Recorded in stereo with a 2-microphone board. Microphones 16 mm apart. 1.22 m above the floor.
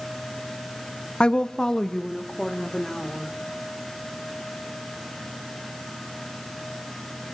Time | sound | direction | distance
1.2 | a woman speaking | 75° left (ahead or behind) | 0.7 m